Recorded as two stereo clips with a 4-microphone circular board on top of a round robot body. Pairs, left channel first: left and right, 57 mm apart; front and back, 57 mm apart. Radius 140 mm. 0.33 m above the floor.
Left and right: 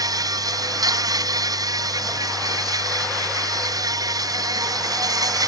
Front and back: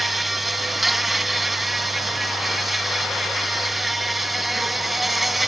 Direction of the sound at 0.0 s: 90° right.